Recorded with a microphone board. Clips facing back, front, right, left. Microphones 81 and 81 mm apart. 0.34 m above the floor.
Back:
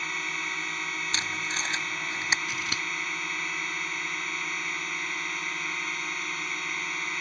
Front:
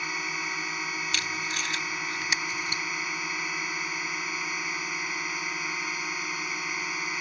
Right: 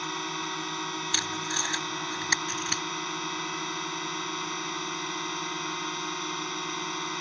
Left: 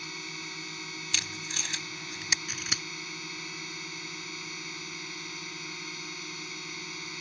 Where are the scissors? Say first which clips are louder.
Even, right 6 dB; straight behind.